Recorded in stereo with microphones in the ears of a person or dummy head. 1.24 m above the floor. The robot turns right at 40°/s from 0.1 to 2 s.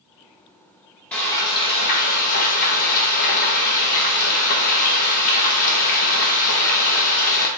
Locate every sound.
1.1 s frying: 5° left, 1.0 m; by 7.5 s 40° left, 1.0 m